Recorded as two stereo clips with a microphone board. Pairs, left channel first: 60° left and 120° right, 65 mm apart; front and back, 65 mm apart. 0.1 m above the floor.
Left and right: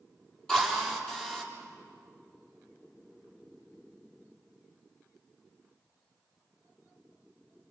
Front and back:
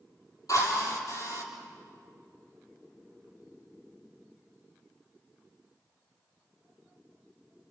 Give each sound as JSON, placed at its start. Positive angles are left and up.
{"t": 0.5, "sound": "a drill", "azimuth_deg": -20, "distance_m": 4.0}